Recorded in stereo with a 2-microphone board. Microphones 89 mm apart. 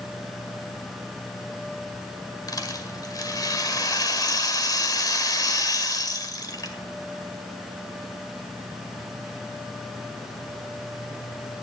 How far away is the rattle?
About 1.8 m.